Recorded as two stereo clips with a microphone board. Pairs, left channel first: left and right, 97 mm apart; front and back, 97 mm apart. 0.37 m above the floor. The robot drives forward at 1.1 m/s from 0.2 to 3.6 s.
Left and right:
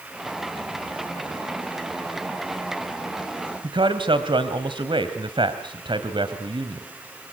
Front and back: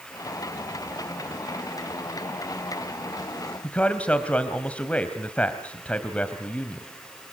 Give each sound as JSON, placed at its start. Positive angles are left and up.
{"t": 3.6, "sound": "a man speaking", "azimuth_deg": -75, "distance_m": 1.9}